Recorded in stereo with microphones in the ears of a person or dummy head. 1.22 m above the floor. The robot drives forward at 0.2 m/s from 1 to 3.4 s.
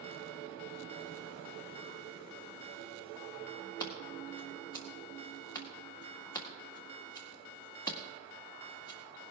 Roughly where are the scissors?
Left.